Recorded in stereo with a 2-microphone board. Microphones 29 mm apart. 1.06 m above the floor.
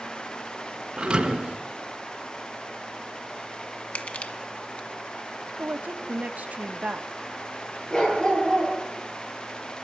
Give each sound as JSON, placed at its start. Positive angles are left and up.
{"t": 1.0, "sound": "a thud", "side_deg": -30, "distance_m": 2.5}
{"t": 4.0, "sound": "crushing", "side_deg": 55, "distance_m": 1.5}
{"t": 5.6, "sound": "a woman speaking", "side_deg": -70, "distance_m": 1.1}
{"t": 7.9, "sound": "a dog barking", "side_deg": 35, "distance_m": 10.0}